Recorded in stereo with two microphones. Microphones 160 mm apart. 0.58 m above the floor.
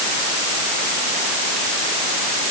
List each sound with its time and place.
Only background noise.